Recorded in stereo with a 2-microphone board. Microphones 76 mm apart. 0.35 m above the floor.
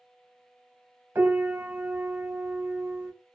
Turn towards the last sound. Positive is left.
turn(degrees=-30)  # may be behind; listen again after turning